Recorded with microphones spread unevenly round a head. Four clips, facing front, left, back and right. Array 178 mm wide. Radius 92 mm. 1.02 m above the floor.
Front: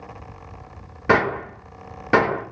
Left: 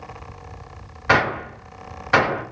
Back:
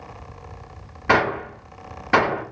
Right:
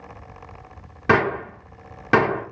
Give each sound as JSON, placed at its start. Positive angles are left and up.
{"t": 1.1, "sound": "a gunshot", "azimuth_deg": -90, "distance_m": 1.7}